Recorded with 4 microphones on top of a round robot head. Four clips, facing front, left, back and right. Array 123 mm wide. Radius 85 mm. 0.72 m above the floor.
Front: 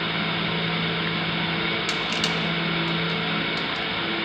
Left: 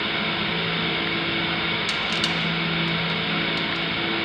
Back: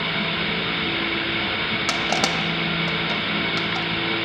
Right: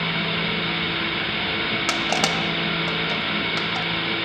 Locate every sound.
1.9 s crushing: 135° right, 1.5 m